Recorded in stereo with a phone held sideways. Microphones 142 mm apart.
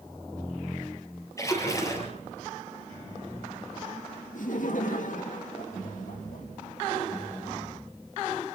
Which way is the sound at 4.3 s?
65° left (ahead or behind).